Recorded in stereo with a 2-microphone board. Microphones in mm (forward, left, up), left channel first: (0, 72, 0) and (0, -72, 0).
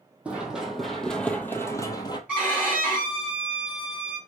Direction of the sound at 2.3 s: 10° right (ahead or behind).